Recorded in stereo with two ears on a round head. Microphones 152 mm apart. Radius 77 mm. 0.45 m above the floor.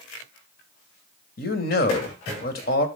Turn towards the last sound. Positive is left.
turn(degrees=55)  # may be behind; listen again after turning